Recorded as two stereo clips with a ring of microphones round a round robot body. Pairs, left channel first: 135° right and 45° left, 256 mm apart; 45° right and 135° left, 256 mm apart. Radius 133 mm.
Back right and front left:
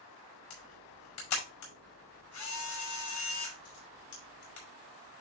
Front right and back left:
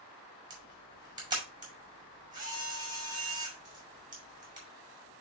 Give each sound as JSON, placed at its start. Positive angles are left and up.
{"t": 0.5, "sound": "a camera shutter", "azimuth_deg": -150, "distance_m": 5.0}